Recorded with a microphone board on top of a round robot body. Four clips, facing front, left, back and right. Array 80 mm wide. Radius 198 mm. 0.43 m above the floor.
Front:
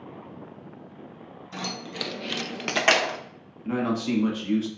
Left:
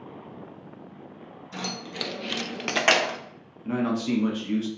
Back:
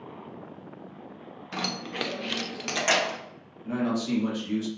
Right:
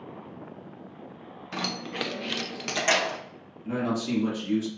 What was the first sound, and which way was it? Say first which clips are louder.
Keys jangling: right 2 dB, back 2 dB; 135° right.